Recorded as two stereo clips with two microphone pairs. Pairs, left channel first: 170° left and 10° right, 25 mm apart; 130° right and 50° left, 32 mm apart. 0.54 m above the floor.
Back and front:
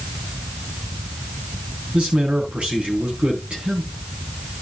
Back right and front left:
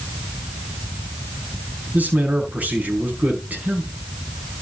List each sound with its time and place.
1.9 s a man speaking: 10° left, 4 m